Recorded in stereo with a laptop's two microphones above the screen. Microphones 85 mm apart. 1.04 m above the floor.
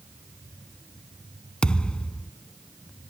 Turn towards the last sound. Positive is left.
turn(degrees=10)  # may be behind; listen again after turning